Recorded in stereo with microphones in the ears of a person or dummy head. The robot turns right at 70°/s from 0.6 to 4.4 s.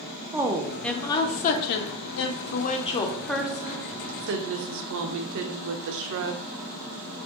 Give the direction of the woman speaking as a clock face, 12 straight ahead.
12 o'clock.